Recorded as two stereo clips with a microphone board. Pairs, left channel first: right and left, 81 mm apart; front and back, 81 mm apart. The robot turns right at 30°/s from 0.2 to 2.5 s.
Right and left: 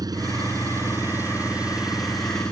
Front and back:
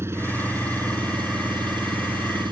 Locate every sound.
0.0 s an engine running: 125° left; by 2.5 s 170° right